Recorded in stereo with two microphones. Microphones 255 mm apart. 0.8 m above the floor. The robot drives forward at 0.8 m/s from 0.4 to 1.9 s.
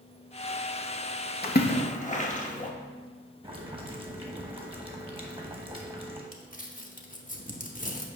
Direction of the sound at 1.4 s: 40° left (ahead or behind).